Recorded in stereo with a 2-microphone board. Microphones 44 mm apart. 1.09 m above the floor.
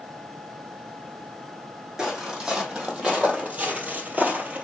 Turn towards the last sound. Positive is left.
turn(degrees=-35)  # may be behind; listen again after turning